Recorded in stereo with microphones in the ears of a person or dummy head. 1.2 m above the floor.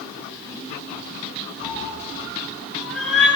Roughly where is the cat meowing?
Centre.